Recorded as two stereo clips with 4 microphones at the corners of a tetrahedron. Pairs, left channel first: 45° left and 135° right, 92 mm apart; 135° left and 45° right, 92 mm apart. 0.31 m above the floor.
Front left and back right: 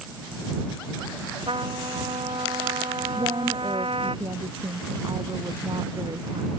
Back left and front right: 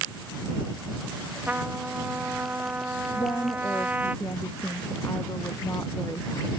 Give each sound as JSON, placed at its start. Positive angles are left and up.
{"t": 1.5, "sound": "a trumpet", "azimuth_deg": -120}
{"t": 3.1, "sound": "a woman speaking", "azimuth_deg": -170}